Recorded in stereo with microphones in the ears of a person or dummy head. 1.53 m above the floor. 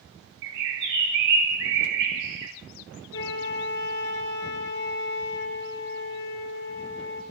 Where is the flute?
60° left (ahead or behind), 1.8 m.